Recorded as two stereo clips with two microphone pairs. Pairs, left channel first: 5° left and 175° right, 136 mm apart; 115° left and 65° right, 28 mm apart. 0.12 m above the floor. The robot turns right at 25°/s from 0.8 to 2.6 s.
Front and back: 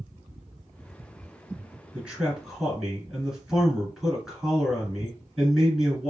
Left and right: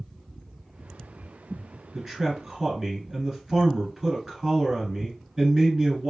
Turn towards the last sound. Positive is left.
turn(degrees=-85)